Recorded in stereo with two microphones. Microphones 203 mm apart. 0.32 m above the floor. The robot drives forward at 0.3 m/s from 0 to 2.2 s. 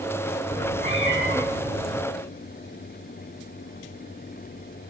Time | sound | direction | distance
0.5 | a cat meowing | 65° left (ahead or behind) | 9.5 m